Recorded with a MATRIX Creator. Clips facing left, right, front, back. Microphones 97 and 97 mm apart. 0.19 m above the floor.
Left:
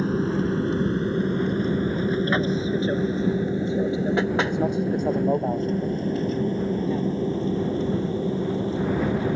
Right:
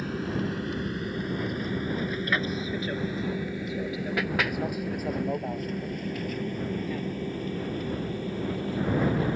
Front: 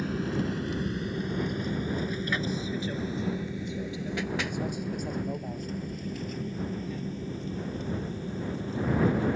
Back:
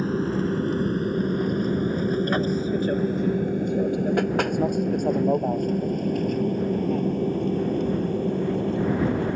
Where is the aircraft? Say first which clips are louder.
Left 7 dB, back 6 dB; 140° left; by 9.4 s 155° left.